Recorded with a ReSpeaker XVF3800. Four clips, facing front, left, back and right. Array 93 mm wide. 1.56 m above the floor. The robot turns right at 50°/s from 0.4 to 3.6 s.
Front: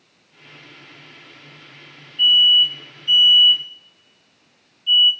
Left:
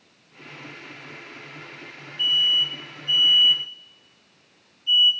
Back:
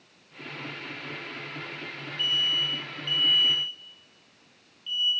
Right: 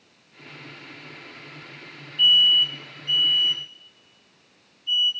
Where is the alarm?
45° right, 3.5 m; by 5.1 s 25° left, 3.5 m.